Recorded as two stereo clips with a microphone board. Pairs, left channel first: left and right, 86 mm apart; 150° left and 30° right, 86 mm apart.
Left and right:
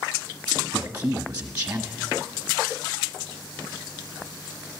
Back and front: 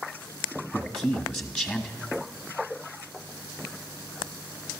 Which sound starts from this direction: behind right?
A man speaking, at 0.7 s.